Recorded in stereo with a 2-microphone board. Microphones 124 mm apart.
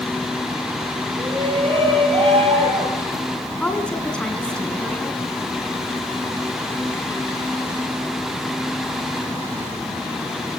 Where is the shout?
45° right (ahead or behind), 8.5 m; by 3.2 s 55° right (ahead or behind), 9 m.